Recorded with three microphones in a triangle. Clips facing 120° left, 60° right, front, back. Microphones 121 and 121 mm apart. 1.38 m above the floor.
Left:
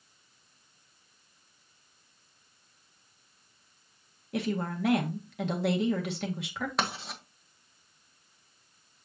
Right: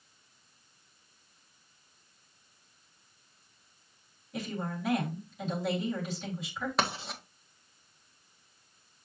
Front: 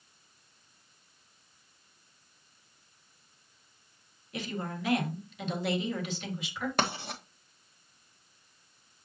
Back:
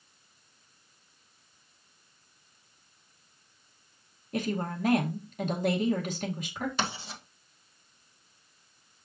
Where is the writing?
30° left, 1.4 m.